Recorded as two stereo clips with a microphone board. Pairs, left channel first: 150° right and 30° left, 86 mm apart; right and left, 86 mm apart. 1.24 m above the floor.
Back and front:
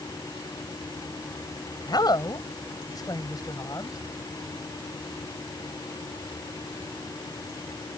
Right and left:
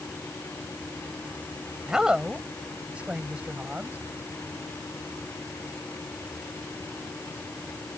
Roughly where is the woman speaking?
Behind.